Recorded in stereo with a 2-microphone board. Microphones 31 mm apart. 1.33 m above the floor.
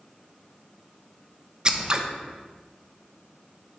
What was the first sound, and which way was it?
Scissors, 25° right (ahead or behind).